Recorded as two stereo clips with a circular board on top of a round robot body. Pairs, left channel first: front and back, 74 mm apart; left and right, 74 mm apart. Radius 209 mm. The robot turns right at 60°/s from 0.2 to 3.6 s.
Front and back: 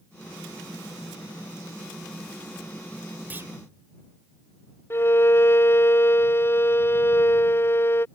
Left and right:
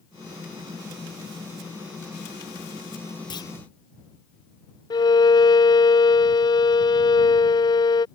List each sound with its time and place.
3.3 s a clunk: 115° left; by 3.5 s 125° left
4.9 s a violin: 60° left